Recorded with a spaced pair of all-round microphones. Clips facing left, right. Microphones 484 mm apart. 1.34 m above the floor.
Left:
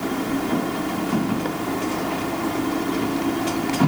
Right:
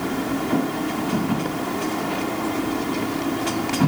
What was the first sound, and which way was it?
Only background noise.